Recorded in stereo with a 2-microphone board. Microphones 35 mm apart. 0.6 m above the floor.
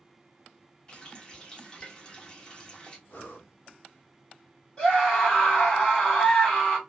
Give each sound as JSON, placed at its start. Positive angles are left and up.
{"t": 0.9, "sound": "a running tap", "side_deg": 25, "distance_m": 0.8}
{"t": 3.1, "sound": "breathing", "side_deg": 70, "distance_m": 0.9}
{"t": 4.8, "sound": "a scream", "side_deg": 30, "distance_m": 1.8}